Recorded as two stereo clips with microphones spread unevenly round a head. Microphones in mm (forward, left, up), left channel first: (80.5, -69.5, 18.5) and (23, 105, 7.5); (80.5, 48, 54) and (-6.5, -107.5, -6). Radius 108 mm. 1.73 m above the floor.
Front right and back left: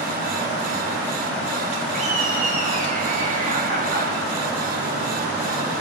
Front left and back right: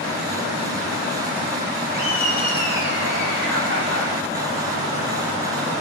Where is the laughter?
55° left, 5.5 m; by 4.1 s 65° left, 4.5 m.